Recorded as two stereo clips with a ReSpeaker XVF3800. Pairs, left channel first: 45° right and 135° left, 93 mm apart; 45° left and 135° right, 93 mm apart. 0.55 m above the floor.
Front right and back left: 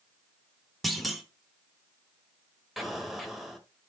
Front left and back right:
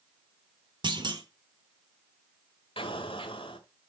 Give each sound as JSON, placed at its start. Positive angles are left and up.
{"t": 0.8, "sound": "a clunk", "azimuth_deg": -135, "distance_m": 1.5}
{"t": 2.8, "sound": "an explosion", "azimuth_deg": 45, "distance_m": 1.6}